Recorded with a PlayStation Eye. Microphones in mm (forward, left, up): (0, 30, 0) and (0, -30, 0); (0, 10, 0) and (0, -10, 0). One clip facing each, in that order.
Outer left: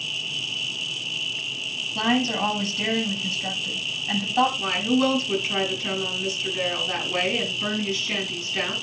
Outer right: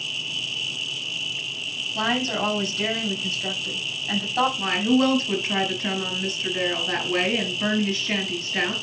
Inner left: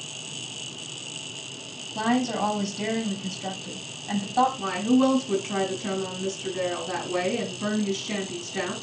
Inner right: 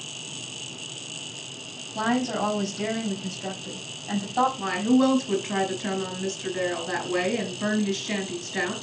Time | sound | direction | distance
1.9 | a woman speaking | 5° right (ahead or behind) | 5 m
4.6 | a woman speaking | 45° right (ahead or behind) | 4.5 m